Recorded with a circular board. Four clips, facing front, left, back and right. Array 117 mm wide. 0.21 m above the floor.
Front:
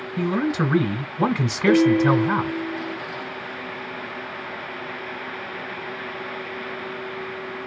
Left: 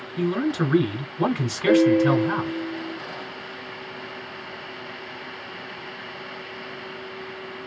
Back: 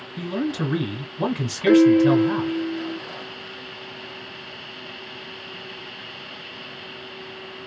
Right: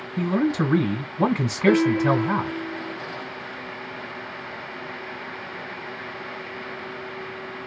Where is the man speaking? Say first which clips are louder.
Right 1 dB, front 3 dB; 30° right, 1.0 m.